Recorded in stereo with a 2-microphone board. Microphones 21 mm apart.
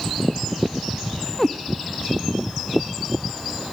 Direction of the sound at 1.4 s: 25° left (ahead or behind).